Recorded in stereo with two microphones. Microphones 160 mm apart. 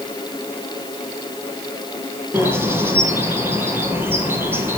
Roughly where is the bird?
Centre.